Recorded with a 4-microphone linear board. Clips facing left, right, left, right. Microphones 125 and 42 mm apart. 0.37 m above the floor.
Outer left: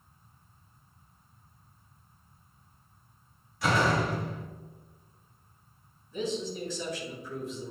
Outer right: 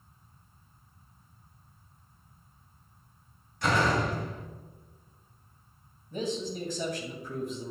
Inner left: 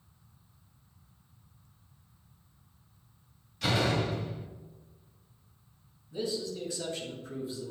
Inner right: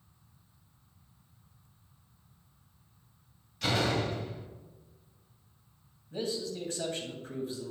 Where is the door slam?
5° left (ahead or behind), 1.2 m.